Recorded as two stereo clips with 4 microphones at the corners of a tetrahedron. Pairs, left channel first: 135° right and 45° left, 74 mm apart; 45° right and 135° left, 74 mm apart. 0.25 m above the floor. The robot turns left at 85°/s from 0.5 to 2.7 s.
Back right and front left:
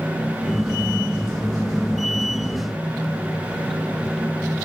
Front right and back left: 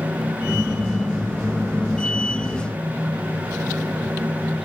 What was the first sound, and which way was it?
Only background noise.